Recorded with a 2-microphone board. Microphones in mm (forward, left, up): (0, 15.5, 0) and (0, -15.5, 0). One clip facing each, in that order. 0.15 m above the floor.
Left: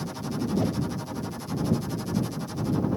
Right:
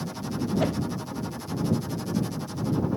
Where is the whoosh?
85° right.